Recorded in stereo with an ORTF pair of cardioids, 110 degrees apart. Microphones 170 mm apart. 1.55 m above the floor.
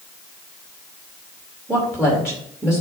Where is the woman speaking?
5° right, 2.5 m.